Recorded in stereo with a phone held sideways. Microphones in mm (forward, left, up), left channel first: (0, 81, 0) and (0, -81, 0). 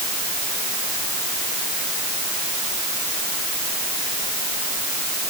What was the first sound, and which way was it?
Only background noise.